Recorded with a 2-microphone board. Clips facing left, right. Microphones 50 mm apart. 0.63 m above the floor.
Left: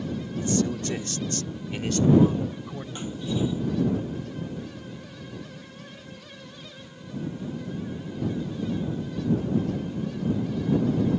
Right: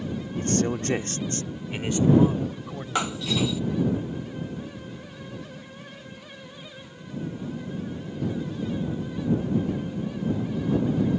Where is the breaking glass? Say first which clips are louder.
Right 3 dB; 80° right.